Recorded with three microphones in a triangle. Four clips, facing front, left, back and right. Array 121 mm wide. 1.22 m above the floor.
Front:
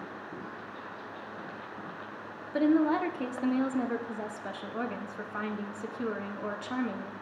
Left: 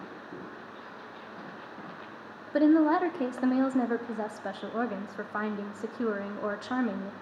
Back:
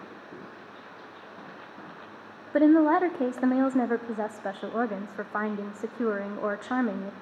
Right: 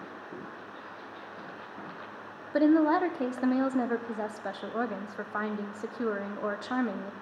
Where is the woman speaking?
Straight behind, 0.6 m.